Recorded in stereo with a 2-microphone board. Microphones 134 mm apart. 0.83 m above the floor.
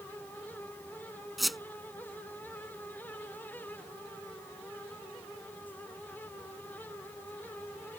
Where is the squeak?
Centre (ahead or behind).